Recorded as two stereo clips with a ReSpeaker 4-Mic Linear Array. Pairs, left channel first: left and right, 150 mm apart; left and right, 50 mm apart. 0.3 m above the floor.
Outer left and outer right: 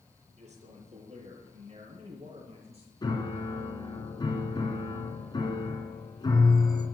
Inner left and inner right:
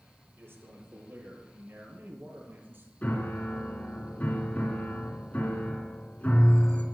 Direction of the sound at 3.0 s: 30° left (ahead or behind).